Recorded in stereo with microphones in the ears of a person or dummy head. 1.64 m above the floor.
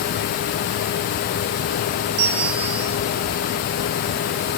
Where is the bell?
60° right (ahead or behind), 5.5 m.